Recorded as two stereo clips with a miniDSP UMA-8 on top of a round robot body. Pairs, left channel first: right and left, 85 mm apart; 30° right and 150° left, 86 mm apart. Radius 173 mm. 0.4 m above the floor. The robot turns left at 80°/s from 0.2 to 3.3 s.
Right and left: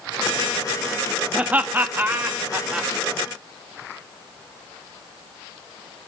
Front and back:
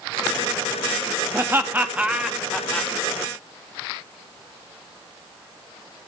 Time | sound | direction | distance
1.3 | laughter | 150° left | 0.8 m